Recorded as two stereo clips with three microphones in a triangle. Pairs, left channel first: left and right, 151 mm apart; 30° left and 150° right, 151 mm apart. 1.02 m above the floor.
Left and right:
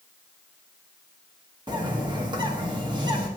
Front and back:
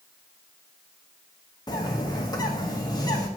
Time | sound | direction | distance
1.7 | a bird | 35° right | 1.0 m